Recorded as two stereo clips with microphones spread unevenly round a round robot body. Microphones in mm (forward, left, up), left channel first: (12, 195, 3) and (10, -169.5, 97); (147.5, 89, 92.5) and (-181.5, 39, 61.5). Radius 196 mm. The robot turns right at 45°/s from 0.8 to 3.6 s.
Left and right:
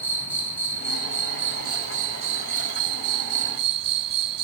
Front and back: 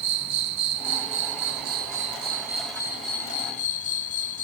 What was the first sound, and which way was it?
An insect, 175° left.